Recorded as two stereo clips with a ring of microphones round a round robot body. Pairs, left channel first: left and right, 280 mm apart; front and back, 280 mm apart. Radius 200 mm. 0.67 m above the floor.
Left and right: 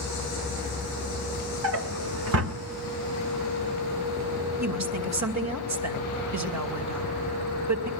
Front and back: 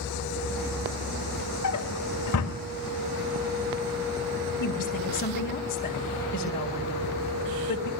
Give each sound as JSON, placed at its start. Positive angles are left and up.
{"t": 1.6, "sound": "a drawer", "azimuth_deg": -55, "distance_m": 1.6}
{"t": 4.6, "sound": "a woman speaking", "azimuth_deg": -70, "distance_m": 2.5}